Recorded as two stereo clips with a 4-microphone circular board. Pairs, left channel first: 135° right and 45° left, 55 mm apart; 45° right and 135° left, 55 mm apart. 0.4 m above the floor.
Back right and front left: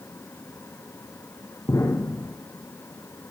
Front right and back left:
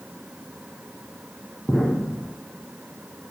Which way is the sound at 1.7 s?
135° right.